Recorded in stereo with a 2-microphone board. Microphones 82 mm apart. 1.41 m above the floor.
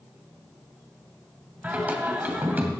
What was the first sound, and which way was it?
Singing, 20° right (ahead or behind).